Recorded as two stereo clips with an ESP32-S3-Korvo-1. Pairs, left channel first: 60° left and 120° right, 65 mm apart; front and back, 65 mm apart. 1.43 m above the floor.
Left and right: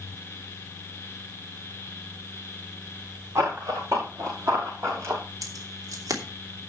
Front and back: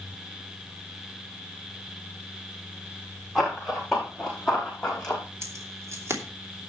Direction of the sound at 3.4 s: 95° right.